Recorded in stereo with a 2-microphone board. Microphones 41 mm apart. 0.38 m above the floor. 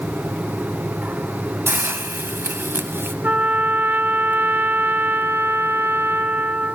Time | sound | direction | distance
1.7 | a hiss | 65° right (ahead or behind) | 0.8 m
3.2 | a trumpet | 45° right (ahead or behind) | 0.8 m